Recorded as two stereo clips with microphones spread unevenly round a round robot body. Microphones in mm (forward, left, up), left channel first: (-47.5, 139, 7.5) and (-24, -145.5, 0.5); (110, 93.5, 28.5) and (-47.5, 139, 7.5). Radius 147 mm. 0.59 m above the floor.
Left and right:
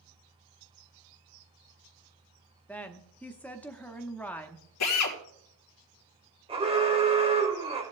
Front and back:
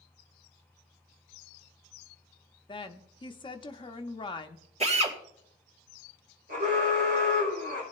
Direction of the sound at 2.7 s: 10° left.